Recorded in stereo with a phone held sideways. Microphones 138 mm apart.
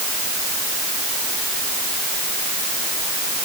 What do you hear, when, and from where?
Only background noise.